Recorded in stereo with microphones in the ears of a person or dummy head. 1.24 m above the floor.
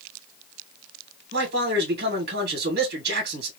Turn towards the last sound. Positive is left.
turn(degrees=-50)  # may be behind; listen again after turning